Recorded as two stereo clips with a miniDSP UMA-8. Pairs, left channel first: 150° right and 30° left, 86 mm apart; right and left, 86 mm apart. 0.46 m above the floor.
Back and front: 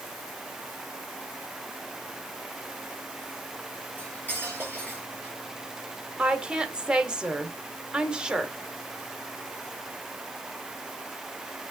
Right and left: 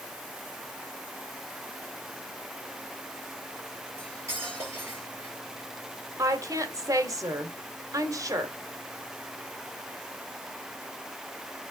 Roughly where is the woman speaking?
Left.